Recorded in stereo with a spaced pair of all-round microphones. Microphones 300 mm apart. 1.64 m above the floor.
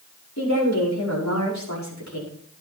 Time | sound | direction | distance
0.4 | a woman speaking | 65° left (ahead or behind) | 5.5 m